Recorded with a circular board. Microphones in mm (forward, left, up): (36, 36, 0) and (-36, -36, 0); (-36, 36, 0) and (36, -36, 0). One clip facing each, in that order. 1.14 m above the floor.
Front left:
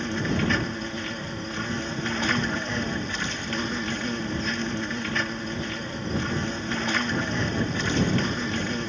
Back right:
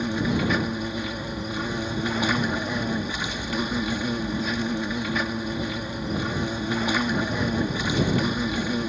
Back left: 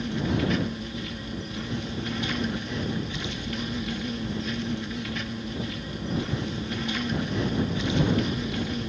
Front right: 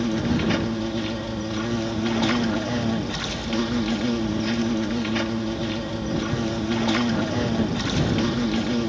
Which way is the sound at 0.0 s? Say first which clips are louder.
Back right 2 dB, front right 4 dB; 55° right.